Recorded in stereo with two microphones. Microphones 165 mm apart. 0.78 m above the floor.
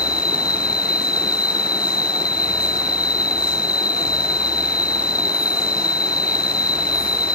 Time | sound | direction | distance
0.0 | an insect | 70° left (ahead or behind) | ?